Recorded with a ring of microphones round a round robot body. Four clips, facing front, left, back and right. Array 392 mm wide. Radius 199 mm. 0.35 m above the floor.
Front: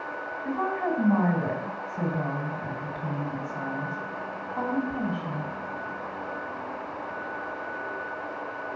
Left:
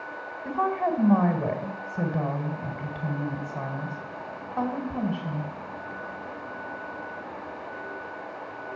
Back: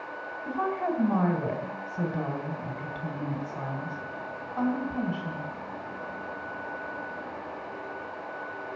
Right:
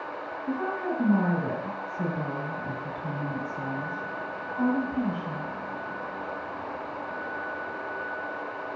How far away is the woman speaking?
About 3 m.